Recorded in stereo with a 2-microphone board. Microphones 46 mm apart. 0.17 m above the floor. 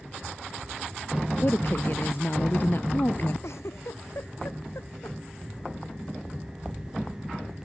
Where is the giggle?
80° left.